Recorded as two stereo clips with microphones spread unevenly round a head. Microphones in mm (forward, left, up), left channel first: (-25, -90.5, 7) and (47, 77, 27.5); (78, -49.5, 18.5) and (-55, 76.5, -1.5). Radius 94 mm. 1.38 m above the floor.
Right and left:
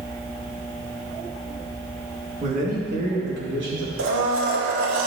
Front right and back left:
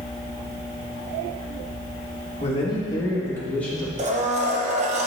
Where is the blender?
85° left, 1.2 m.